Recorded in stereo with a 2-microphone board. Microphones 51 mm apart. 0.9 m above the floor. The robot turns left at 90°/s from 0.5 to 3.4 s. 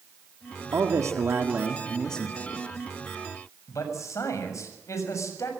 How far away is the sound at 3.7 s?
About 7 m.